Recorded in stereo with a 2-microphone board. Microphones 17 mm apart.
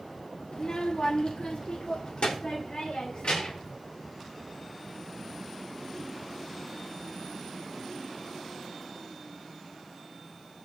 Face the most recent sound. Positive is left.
turn(degrees=75)  # may be behind; listen again after turning